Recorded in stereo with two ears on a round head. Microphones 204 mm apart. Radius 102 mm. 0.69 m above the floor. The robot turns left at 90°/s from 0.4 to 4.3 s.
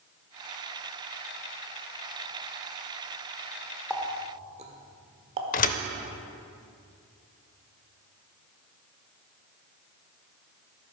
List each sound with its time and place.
3.9 s a running tap: 5° left (ahead or behind), 1.2 m; by 5.4 s 30° right (ahead or behind), 1.2 m
5.5 s a thud: 35° left (ahead or behind), 0.6 m